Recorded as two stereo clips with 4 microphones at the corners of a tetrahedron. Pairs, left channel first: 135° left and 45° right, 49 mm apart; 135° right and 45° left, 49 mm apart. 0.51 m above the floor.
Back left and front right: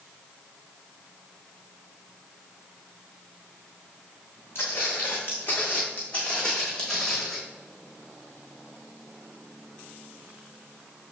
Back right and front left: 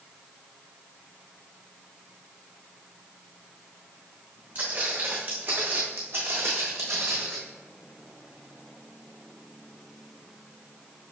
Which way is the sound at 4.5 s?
100° left.